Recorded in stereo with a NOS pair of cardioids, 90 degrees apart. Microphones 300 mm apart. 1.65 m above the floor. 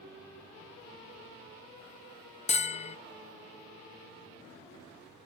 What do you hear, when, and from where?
2.5 s a bell: 20° left, 0.8 m